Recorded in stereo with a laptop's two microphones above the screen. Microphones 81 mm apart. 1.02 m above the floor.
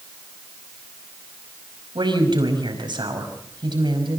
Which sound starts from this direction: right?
A woman speaking, at 1.9 s.